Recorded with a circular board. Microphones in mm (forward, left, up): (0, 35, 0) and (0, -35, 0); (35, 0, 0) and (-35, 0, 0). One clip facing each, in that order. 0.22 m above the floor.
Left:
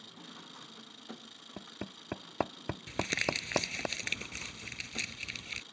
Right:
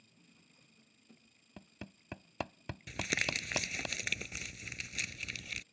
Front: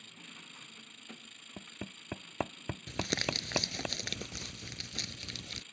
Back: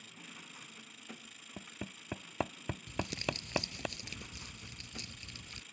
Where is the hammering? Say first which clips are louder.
Left 7 dB, even; 90° left.